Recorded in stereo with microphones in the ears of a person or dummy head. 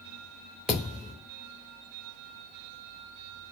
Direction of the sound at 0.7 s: Centre (ahead or behind).